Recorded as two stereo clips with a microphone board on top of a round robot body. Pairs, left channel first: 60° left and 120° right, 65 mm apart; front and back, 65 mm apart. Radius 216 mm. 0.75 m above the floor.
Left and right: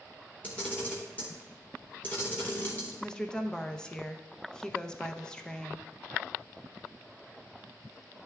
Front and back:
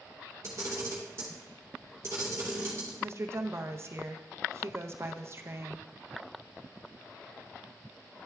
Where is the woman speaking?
135° left, 0.8 m.